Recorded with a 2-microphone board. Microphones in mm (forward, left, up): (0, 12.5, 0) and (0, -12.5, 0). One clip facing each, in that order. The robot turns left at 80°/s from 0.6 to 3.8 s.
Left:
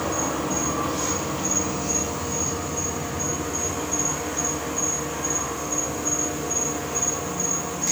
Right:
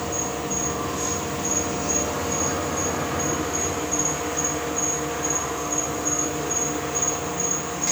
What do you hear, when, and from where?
0.0 s an insect: 90° left, 3 m; by 7.9 s 165° right, 3 m